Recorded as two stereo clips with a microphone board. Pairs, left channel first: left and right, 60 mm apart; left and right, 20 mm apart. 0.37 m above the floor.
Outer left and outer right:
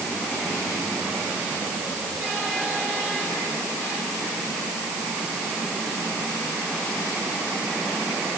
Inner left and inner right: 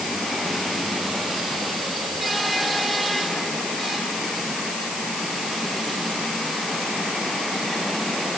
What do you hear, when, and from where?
Only background noise.